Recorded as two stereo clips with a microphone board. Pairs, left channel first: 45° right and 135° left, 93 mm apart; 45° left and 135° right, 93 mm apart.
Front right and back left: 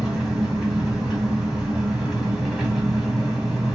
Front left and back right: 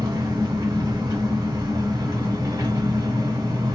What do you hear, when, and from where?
0.0 s an engine running: 140° right, 1.3 m